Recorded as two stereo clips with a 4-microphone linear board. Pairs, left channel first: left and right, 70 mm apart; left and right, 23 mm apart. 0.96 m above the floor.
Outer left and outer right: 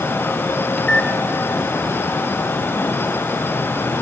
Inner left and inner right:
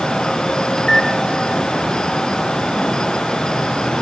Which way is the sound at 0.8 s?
15° left (ahead or behind).